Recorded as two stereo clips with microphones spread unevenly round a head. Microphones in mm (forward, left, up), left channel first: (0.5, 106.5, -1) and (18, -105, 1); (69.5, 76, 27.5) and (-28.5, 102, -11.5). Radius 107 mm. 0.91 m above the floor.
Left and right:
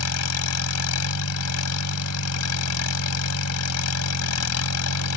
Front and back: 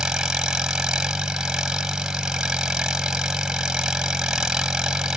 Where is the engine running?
80° left.